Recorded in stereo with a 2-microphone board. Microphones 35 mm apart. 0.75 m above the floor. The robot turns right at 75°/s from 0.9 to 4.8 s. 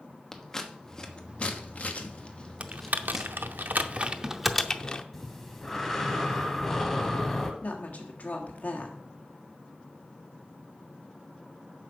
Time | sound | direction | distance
0.3 | scissors | 15° left (ahead or behind) | 1.1 m
2.6 | typing on a keyboard | 35° right (ahead or behind) | 0.6 m
5.1 | breathing | 10° left (ahead or behind) | 1.6 m
7.6 | a woman speaking | 50° left (ahead or behind) | 1.6 m